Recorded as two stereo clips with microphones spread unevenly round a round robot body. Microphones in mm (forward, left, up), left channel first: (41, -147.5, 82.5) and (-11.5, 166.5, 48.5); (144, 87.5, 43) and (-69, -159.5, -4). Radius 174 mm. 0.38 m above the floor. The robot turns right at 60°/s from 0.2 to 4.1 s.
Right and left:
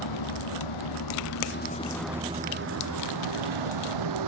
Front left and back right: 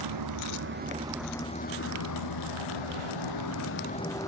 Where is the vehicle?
105° right; by 4.3 s 130° left.